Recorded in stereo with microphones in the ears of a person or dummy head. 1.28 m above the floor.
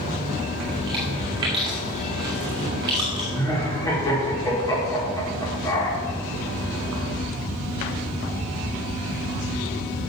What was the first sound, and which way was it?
Chewing, 25° right (ahead or behind).